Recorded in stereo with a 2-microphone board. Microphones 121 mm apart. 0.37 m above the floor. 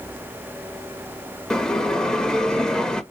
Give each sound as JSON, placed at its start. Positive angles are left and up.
{"t": 1.5, "sound": "a bell", "side_deg": 5, "distance_m": 0.6}